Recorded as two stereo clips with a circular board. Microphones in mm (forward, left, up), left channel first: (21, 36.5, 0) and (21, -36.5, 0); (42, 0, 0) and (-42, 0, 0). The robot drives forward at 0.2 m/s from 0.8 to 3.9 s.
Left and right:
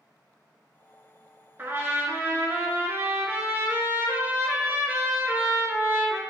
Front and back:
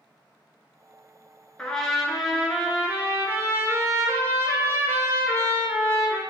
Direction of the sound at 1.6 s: 70° right.